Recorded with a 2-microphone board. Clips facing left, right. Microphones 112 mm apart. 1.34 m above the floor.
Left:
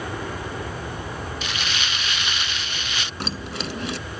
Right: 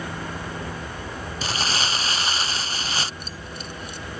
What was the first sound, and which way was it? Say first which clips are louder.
An aircraft: left 2 dB; 55° left (ahead or behind).